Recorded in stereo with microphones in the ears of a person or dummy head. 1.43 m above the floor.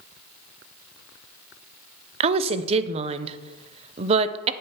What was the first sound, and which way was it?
A woman speaking, 35° right (ahead or behind).